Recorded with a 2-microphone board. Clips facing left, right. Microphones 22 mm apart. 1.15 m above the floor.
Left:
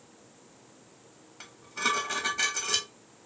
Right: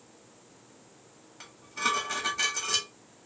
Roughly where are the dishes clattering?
Centre.